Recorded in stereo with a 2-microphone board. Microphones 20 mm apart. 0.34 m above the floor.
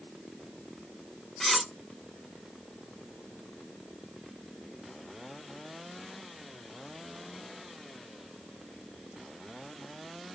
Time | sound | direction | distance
1.4 | cutlery clinking | 10° left (ahead or behind) | 0.7 m